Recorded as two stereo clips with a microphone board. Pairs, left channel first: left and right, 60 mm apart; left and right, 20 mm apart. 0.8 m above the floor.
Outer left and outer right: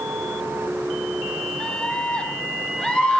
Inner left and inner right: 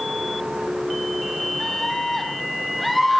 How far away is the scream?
About 3.5 m.